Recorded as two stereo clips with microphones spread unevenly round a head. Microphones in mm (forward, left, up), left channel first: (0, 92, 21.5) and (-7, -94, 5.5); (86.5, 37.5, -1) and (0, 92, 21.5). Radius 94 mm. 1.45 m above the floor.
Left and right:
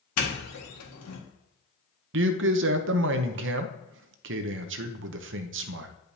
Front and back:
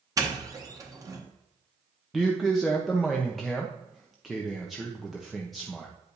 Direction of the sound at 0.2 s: 90° left.